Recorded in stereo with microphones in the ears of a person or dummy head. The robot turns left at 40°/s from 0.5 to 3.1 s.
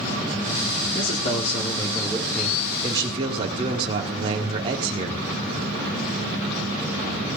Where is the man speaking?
55° left, 1.9 m; by 5.2 s 30° right, 1.9 m.